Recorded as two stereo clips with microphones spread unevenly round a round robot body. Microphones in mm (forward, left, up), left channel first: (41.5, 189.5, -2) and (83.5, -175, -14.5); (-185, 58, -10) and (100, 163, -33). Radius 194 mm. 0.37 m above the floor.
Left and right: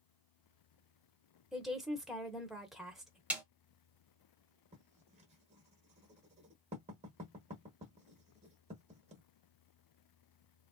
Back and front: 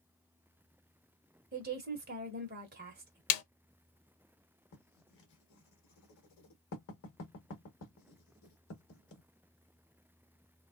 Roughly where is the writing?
Behind right.